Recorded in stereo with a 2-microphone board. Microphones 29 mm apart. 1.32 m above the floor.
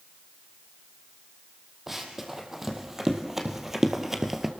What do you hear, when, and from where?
1.9 s running footsteps: 10° right (ahead or behind), 3.5 m